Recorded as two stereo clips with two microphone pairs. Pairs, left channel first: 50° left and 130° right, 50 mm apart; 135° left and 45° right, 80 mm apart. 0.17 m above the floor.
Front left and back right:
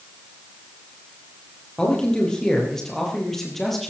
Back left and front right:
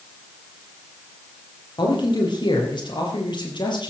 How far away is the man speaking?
About 5.5 m.